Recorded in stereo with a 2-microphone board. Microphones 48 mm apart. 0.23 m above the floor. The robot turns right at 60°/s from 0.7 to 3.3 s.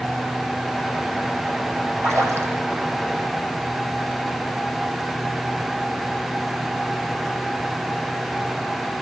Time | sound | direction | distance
2.0 | a splash | 120° right | 5.5 m